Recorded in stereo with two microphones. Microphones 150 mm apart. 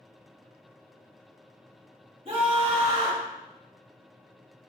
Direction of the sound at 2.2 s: 40° right (ahead or behind).